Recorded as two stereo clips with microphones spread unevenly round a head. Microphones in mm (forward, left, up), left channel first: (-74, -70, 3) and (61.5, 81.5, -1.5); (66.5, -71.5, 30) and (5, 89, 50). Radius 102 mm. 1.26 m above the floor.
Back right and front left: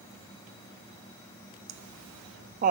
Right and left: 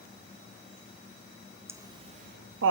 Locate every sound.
1.7 s laughter: 35° left, 0.7 m; by 2.7 s 105° left, 0.5 m